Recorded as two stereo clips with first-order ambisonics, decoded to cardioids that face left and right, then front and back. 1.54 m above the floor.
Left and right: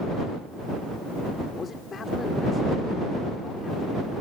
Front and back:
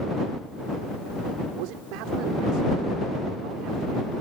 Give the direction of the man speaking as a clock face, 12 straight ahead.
7 o'clock.